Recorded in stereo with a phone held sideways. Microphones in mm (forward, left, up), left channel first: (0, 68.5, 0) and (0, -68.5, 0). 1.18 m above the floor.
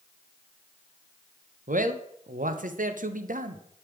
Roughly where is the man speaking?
Right.